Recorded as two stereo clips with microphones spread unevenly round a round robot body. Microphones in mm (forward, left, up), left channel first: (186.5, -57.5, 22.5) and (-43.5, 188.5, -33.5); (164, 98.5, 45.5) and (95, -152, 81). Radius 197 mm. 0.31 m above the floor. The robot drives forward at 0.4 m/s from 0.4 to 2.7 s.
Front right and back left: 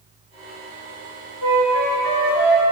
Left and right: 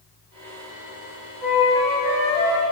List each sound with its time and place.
1.4 s a flute: 160° left, 2.5 m; by 2.6 s 165° left, 3 m